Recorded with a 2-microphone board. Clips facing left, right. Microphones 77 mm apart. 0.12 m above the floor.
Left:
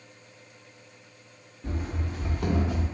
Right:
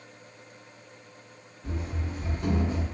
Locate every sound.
1.6 s running footsteps: 55° left (ahead or behind), 1.0 m; by 2.9 s 80° left, 1.1 m